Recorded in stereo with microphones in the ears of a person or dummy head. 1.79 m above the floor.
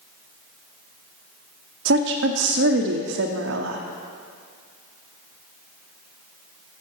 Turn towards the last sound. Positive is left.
turn(degrees=-80)